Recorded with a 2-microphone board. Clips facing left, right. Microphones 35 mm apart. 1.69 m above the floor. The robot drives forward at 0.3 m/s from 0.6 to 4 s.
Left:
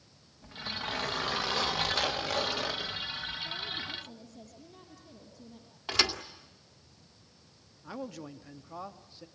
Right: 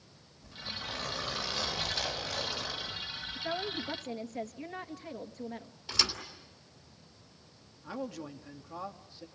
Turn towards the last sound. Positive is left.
turn(degrees=0)  # may be behind; listen again after turning